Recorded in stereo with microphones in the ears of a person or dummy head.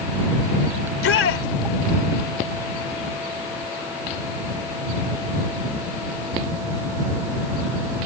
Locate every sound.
0.8 s a shout: 75° left (ahead or behind)